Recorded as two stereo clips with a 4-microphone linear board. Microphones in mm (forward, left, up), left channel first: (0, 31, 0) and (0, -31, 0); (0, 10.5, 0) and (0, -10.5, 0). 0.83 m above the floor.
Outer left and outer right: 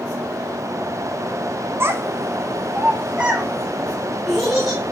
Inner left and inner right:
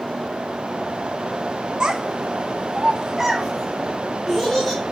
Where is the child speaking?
40° right (ahead or behind), 0.7 m; by 4.8 s centre (ahead or behind), 1.3 m.